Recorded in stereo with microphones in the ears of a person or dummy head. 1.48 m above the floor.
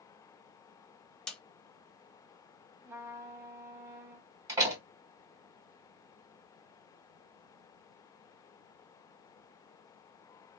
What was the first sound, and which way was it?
A snare drum, centre (ahead or behind).